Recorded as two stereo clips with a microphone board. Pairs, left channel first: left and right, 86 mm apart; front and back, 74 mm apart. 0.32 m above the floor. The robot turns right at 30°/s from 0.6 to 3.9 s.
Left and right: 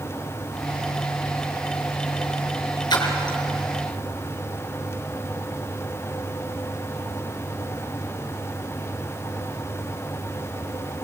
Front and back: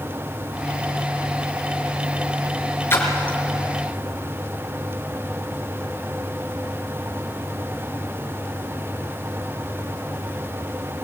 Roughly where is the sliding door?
I don't hear a sliding door.